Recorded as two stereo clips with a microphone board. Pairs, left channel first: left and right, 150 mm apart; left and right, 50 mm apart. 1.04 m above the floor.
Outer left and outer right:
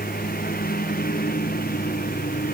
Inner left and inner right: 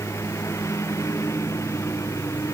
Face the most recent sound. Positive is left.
turn(degrees=80)